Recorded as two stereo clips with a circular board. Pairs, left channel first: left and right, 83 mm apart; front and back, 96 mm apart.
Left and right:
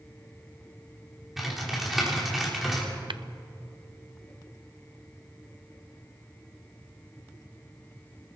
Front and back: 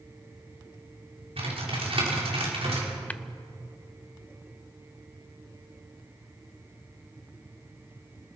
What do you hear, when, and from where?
1.4 s typing on a keyboard: 175° right, 4.5 m
3.1 s tapping: 75° right, 0.6 m